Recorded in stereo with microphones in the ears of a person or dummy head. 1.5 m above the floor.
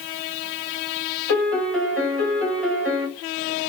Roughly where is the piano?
Centre.